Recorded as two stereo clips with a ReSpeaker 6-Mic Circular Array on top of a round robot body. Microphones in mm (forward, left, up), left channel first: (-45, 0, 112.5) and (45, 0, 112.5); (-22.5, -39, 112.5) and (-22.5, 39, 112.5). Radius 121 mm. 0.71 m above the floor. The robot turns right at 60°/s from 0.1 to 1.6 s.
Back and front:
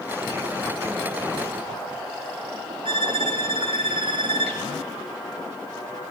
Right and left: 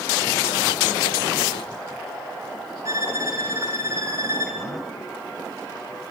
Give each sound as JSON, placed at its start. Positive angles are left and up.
{"t": 2.9, "sound": "a violin", "azimuth_deg": 30, "distance_m": 0.6}